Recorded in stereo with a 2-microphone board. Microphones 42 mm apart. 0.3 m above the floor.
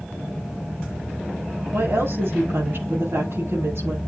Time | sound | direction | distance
1.7 | a woman speaking | 70° right (ahead or behind) | 5.5 m